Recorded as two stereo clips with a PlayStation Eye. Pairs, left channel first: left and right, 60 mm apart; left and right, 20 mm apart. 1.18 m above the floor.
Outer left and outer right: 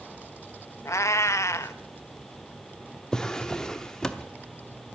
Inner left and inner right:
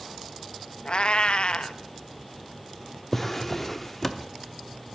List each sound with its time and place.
0.8 s a cat meowing: 50° left (ahead or behind), 0.6 m
3.1 s a drawer: 10° left (ahead or behind), 0.8 m